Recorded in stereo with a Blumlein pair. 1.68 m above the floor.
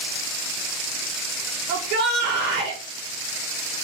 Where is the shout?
40° right, 0.9 m.